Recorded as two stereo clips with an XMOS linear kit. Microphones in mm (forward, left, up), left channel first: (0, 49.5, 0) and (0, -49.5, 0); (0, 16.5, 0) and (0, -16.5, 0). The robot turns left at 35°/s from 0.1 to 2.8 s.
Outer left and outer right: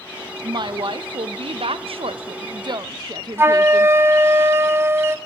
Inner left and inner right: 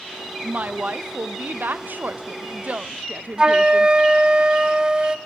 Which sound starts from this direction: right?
A flute, at 3.4 s.